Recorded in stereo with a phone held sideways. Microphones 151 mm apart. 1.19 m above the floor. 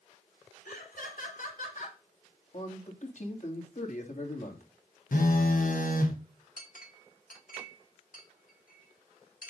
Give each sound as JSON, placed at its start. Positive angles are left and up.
{"t": 0.7, "sound": "laughter", "side_deg": 85, "distance_m": 4.0}
{"t": 2.5, "sound": "a man speaking", "side_deg": 60, "distance_m": 3.0}
{"t": 5.1, "sound": "a phone buzzing", "side_deg": 70, "distance_m": 1.3}
{"t": 6.6, "sound": "a clink", "side_deg": 75, "distance_m": 1.7}